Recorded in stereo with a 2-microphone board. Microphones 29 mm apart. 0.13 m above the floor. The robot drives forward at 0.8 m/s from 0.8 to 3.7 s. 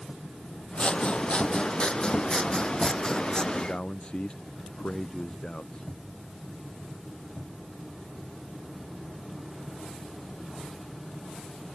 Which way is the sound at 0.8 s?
40° left (ahead or behind).